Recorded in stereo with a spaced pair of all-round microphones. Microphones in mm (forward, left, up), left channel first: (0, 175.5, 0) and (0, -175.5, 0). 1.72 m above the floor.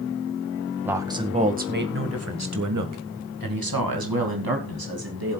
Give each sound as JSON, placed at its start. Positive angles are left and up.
{"t": 0.8, "sound": "a man speaking", "side_deg": -5, "distance_m": 1.9}